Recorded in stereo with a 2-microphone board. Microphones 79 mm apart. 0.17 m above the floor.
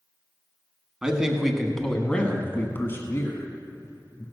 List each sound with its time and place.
1.0 s a man speaking: 10° right (ahead or behind), 1.3 m; by 4.2 s 45° left (ahead or behind), 1.7 m